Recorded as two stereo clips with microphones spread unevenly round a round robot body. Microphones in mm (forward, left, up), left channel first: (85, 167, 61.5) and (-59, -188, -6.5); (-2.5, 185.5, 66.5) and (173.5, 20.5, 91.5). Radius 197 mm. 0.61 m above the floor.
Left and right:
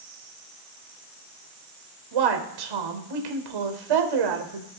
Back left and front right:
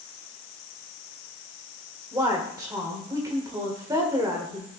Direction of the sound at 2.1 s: 120° right.